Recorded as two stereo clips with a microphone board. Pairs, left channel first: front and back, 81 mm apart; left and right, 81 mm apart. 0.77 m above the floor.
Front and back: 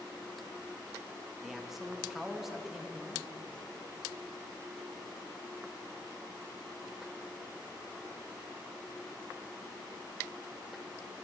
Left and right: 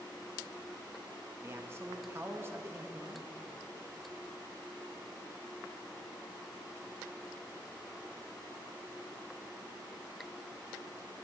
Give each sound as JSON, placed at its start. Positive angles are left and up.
{"t": 1.4, "sound": "a man speaking", "azimuth_deg": -100, "distance_m": 0.6}